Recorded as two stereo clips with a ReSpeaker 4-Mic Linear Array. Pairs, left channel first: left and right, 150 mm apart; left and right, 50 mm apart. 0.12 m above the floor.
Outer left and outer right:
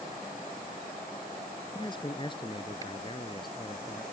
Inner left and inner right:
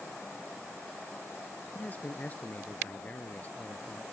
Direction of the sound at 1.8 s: 30° left (ahead or behind).